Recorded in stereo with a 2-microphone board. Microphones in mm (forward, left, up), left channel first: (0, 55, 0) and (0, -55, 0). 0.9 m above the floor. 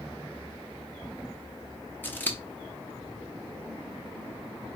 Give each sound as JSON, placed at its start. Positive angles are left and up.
{"t": 2.0, "sound": "scissors", "side_deg": 20, "distance_m": 0.7}